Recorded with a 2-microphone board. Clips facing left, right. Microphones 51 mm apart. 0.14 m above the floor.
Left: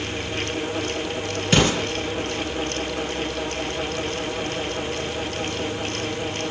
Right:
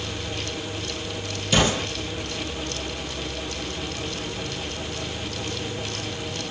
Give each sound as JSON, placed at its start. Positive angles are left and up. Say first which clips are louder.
{"t": 1.5, "sound": "an explosion", "louder": "left 2 dB", "side_deg": 45, "distance_m": 3.0}